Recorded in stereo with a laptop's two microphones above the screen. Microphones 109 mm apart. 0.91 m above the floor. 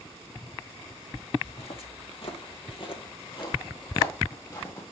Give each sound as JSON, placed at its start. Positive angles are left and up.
{"t": 1.4, "sound": "footsteps", "side_deg": 60, "distance_m": 1.8}